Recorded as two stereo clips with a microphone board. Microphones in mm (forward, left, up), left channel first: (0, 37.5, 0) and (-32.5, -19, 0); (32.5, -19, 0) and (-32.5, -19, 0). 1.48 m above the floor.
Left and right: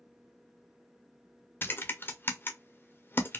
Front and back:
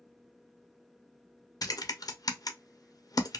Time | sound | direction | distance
1.6 | typing on a keyboard | 5° left | 0.5 m